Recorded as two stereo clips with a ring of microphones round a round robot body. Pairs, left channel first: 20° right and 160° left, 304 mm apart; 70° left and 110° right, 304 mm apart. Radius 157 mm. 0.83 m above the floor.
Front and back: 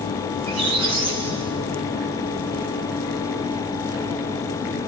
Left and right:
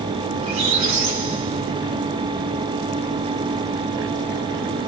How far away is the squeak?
About 5.5 m.